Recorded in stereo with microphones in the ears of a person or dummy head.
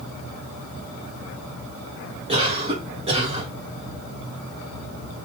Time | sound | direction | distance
2.3 | a cough | 25° right (ahead or behind) | 1.1 m